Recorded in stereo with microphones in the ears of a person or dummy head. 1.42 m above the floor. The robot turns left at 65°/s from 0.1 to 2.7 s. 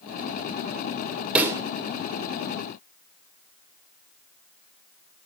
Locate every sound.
1.4 s a pop: 5° right (ahead or behind), 0.5 m; by 1.6 s 20° right (ahead or behind), 0.5 m